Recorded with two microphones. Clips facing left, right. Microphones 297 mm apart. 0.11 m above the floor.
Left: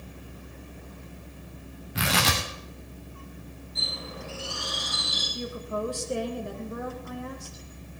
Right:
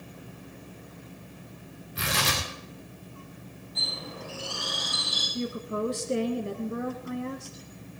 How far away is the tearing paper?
About 3 m.